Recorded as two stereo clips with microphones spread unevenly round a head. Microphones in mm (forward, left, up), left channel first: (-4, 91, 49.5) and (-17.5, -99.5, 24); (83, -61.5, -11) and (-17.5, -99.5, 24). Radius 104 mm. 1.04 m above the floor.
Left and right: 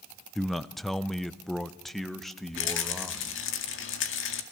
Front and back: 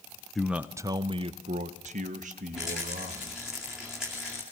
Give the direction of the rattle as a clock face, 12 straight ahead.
8 o'clock.